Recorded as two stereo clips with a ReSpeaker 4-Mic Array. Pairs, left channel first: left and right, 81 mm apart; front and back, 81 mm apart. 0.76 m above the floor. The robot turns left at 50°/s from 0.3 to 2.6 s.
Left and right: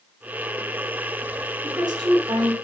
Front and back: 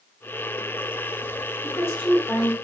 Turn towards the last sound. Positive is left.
turn(degrees=-95)